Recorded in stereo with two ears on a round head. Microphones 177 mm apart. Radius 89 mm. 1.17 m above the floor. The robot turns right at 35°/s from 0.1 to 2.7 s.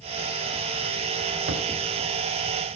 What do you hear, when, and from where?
1.5 s a thud: 55° right (ahead or behind), 3 m; by 1.7 s 60° right (ahead or behind), 3 m